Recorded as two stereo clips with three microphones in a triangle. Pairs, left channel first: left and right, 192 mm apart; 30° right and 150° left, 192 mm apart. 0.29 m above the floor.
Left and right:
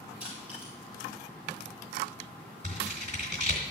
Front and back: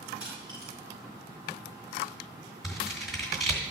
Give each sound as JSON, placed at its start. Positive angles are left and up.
{"t": 0.2, "sound": "crushing", "azimuth_deg": 140, "distance_m": 5.5}
{"t": 2.6, "sound": "scissors", "azimuth_deg": -120, "distance_m": 3.0}